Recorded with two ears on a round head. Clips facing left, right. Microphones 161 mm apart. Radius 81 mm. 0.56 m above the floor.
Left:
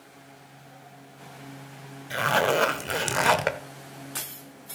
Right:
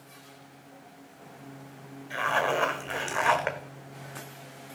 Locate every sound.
2.1 s a zipper: 40° left (ahead or behind), 0.7 m